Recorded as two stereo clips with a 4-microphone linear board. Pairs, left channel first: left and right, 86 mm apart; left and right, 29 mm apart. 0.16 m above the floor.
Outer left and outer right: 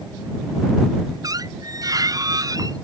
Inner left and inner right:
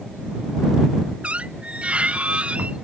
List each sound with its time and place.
1.2 s a squeak: 45° right (ahead or behind)